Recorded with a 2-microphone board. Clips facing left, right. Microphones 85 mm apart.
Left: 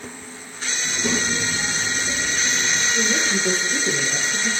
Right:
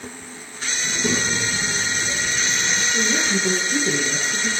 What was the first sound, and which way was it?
A child speaking, 45° right (ahead or behind).